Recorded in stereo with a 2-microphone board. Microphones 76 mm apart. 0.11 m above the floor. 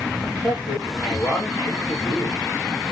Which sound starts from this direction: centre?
A man speaking, at 0.2 s.